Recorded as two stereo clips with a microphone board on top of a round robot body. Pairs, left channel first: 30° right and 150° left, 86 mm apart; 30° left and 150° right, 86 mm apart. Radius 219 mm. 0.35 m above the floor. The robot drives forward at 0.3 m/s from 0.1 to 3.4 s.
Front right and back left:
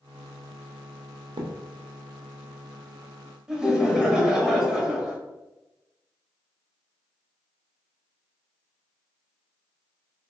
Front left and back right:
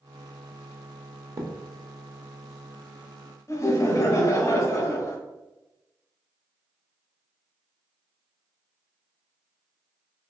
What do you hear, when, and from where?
1.4 s a thud: 160° left, 0.8 m; by 1.5 s 165° left, 0.8 m
3.5 s laughter: 70° left, 1.2 m